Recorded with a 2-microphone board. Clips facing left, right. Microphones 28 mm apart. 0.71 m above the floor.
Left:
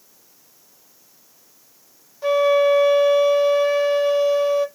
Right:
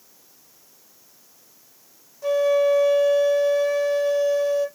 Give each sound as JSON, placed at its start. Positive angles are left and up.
{"t": 2.2, "sound": "a flute", "side_deg": 45, "distance_m": 1.1}